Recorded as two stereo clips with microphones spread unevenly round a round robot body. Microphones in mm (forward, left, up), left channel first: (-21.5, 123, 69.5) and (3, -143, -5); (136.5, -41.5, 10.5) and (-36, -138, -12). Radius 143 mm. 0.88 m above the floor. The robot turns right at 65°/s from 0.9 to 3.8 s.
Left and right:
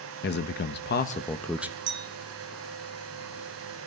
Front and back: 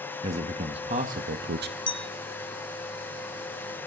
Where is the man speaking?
155° left, 0.8 m; by 1.8 s 150° right, 0.8 m.